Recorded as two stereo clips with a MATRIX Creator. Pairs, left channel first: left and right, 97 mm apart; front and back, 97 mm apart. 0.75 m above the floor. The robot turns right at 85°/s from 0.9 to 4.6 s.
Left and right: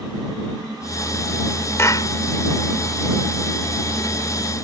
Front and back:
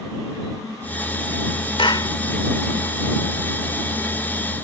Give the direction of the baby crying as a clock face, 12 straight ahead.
I don't hear a baby crying.